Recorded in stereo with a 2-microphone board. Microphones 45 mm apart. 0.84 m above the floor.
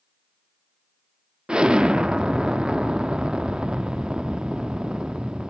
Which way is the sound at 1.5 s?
20° right (ahead or behind).